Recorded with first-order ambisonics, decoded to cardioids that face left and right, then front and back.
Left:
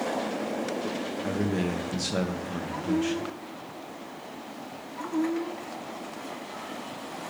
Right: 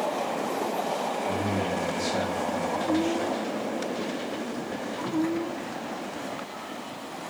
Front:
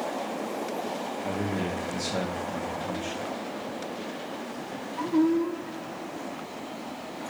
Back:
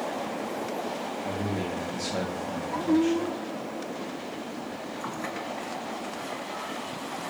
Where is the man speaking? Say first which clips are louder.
Right 2 dB, front 2 dB; 85° left, 0.6 m.